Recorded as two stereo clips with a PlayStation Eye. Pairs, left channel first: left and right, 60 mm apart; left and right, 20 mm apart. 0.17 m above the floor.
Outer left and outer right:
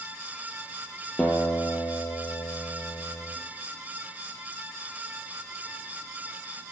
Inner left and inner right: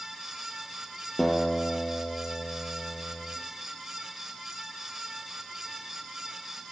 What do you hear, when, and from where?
1.2 s a guitar: 20° left (ahead or behind), 1.2 m